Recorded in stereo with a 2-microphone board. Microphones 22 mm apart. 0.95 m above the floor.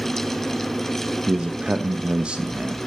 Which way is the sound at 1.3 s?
60° right (ahead or behind).